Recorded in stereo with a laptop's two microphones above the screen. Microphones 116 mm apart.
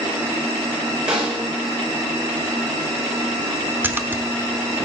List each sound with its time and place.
1.1 s a snare drum: 10° right (ahead or behind), 4 m
3.8 s a splash: 15° right (ahead or behind), 0.7 m